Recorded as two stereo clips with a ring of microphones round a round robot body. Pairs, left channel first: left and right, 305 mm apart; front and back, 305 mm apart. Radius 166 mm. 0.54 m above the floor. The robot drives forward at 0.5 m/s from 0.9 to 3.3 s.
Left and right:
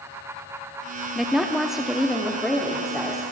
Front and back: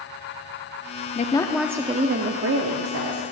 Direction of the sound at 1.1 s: 5° right.